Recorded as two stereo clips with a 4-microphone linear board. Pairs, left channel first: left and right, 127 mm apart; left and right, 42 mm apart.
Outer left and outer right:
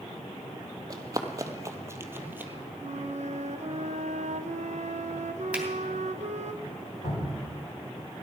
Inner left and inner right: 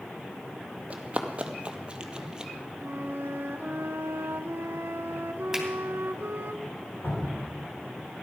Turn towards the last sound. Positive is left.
turn(degrees=85)